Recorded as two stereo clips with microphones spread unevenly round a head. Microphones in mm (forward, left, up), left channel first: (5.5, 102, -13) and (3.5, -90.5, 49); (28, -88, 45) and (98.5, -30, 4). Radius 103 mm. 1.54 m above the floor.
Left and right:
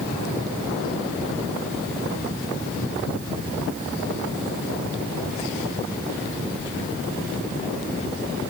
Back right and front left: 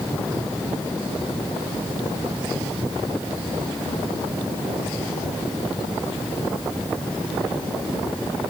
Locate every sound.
Only background noise.